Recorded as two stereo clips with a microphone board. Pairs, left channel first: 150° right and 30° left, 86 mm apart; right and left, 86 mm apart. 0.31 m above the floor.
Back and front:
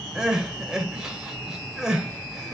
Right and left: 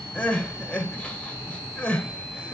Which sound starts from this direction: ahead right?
Crying, at 0.1 s.